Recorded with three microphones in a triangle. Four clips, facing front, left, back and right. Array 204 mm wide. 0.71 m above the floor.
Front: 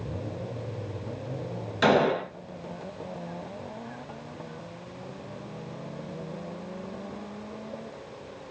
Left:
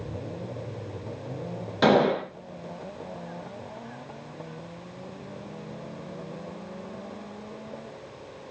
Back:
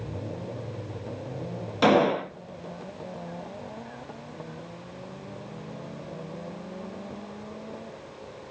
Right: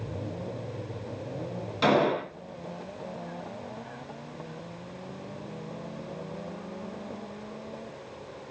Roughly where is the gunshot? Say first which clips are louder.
Left 3 dB, back 1 dB; behind left.